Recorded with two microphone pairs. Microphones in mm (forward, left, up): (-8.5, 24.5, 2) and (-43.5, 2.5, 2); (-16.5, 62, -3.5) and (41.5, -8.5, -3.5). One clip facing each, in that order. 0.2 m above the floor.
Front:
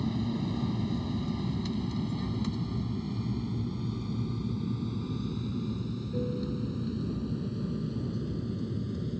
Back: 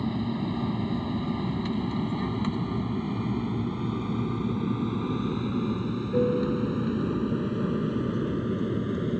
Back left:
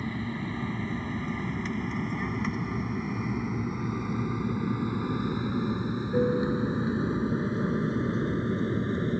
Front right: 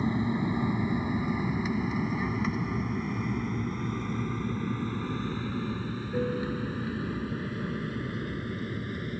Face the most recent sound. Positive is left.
turn(degrees=-175)